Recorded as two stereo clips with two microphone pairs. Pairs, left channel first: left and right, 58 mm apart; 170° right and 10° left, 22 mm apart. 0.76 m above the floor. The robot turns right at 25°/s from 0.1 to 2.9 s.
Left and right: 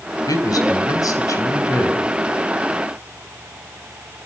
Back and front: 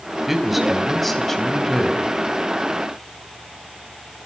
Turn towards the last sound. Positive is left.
turn(degrees=150)